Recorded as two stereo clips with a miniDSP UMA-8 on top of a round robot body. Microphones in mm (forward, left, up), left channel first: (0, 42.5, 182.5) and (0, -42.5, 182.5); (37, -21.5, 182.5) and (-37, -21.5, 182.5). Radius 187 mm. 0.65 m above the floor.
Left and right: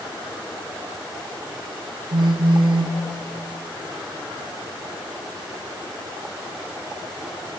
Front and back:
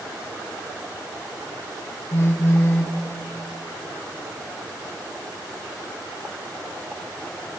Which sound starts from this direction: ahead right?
A phone buzzing, at 2.1 s.